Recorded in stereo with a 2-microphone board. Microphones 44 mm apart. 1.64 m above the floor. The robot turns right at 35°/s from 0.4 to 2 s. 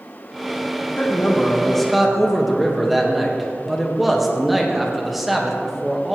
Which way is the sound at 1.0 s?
145° left.